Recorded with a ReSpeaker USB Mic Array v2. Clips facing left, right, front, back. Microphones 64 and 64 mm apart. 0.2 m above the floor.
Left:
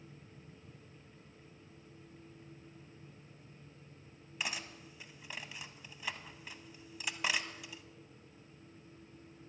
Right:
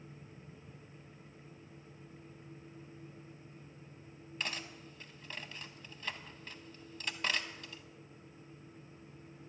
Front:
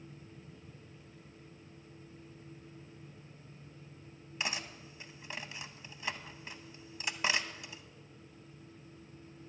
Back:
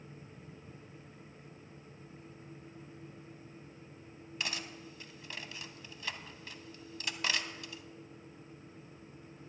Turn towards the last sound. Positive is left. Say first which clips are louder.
# even, front 2 dB
turn(degrees=25)